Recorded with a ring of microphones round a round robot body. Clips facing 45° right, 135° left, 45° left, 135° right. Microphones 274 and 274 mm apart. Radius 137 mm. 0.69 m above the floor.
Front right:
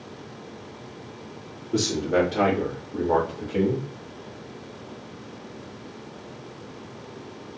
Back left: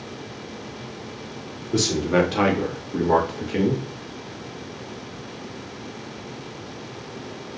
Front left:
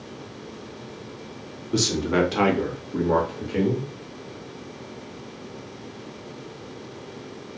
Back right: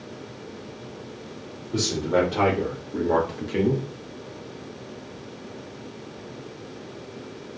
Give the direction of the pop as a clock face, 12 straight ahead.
No pop in this recording.